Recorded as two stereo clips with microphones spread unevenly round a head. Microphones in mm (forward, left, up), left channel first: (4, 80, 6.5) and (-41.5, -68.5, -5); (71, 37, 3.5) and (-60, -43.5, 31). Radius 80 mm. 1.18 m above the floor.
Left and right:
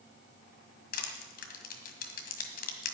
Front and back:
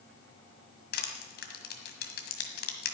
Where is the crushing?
60° left, 1.6 m.